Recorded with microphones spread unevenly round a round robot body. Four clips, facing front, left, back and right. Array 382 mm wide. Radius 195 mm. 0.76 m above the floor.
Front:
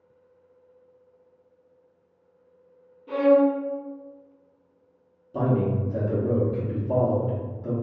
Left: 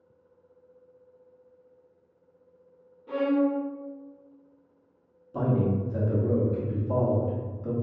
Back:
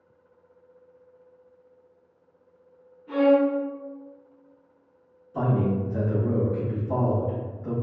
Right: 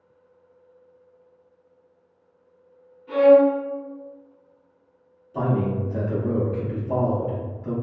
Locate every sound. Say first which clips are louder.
3.1 s a violin: right 10 dB, front 1 dB; 20° left, 1.0 m
5.3 s a man speaking: right 2 dB, front 1 dB; 30° left, 1.1 m